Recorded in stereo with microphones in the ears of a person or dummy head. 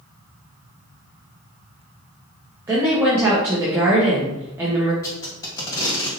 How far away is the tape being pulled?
About 1.3 m.